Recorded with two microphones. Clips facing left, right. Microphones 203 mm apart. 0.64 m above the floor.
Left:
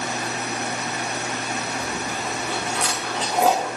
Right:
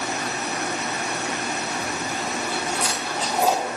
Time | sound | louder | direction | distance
1.8 | chewing | even | 90° left | 10 m